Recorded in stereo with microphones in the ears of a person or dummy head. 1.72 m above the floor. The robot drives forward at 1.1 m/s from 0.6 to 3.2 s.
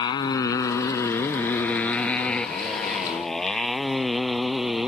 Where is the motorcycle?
30° left (ahead or behind); by 4.9 s centre (ahead or behind).